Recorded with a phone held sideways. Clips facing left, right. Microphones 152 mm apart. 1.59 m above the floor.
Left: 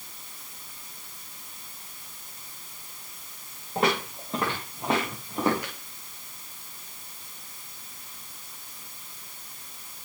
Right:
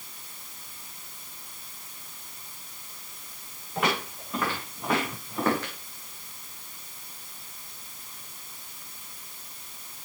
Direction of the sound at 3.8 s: 35° left (ahead or behind).